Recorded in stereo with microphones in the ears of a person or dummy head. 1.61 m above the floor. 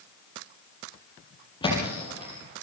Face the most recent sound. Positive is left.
turn(degrees=25)  # may be behind; listen again after turning